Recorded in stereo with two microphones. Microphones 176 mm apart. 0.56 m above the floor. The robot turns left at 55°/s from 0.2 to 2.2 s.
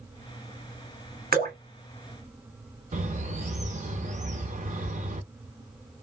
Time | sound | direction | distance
1.3 | dripping | 60° right (ahead or behind) | 1.1 m
2.9 | a bird | 45° right (ahead or behind) | 0.5 m